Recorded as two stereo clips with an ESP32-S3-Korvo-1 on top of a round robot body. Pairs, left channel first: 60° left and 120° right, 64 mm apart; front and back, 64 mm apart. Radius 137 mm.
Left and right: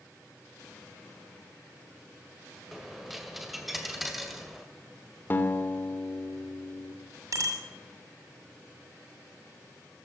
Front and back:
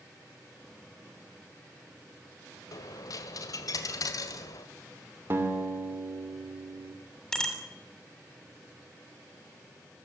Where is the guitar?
120° left, 2.5 m.